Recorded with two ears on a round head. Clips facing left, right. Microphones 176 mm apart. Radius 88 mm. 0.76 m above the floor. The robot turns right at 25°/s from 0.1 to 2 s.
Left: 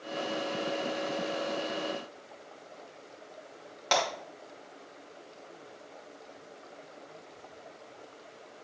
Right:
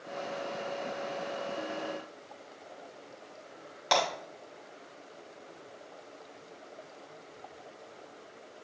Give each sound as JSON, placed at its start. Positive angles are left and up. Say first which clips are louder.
{"t": 3.9, "sound": "breaking glass", "louder": "right 1 dB", "side_deg": -10, "distance_m": 3.0}